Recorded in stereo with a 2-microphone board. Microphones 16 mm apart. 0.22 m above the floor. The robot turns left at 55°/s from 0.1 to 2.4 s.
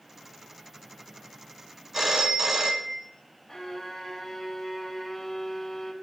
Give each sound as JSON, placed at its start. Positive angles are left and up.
{"t": 1.9, "sound": "a phone ringing", "side_deg": -20, "distance_m": 1.1}
{"t": 3.5, "sound": "a violin", "side_deg": 20, "distance_m": 1.9}